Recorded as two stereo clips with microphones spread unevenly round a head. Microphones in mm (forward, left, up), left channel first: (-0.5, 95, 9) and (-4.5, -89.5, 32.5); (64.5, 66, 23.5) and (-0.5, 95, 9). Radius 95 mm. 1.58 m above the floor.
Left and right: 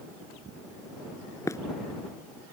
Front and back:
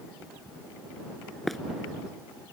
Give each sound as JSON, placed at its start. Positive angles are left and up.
{"t": 1.5, "sound": "running footsteps", "azimuth_deg": 20}